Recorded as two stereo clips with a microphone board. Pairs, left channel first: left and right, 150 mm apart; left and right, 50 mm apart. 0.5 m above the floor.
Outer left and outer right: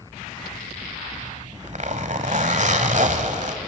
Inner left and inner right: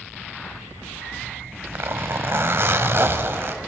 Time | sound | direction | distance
1.1 | a zipper | 55° right (ahead or behind) | 1.4 m